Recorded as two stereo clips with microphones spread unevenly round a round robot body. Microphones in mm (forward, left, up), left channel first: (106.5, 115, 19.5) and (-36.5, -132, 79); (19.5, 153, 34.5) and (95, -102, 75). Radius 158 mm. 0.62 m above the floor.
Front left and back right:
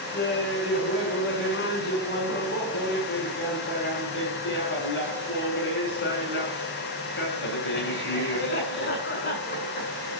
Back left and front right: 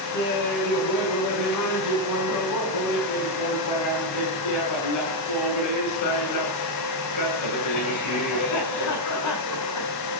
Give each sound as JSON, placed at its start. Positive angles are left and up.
{"t": 0.1, "sound": "laughter", "azimuth_deg": 115, "distance_m": 7.5}